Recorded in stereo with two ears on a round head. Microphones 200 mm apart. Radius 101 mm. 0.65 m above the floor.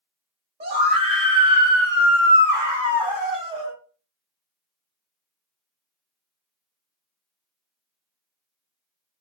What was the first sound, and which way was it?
A scream, 25° right (ahead or behind).